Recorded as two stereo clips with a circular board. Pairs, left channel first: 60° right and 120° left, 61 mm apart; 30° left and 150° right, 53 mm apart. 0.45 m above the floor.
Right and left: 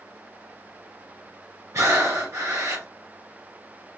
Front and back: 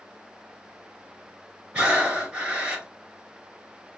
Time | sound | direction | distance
1.7 | breathing | 140° left | 1.3 m